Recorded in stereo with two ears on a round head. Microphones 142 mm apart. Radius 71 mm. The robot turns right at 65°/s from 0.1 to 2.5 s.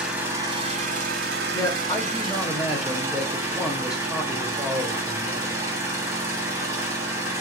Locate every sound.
0.0 s an engine running: 175° right, 0.8 m; by 7.4 s 20° right, 0.8 m
1.5 s a man speaking: 25° left (ahead or behind), 0.8 m; by 5.6 s 5° right (ahead or behind), 0.8 m